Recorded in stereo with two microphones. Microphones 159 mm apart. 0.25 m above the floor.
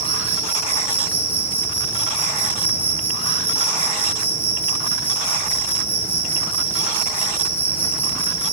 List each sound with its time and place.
0.0 s an insect: 15° left (ahead or behind), 0.9 m